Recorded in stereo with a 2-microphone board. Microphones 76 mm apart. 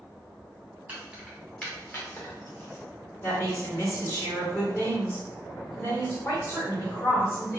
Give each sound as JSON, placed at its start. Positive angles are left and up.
{"t": 0.9, "sound": "keys jangling", "side_deg": -20, "distance_m": 0.9}
{"t": 3.2, "sound": "a woman speaking", "side_deg": 30, "distance_m": 1.2}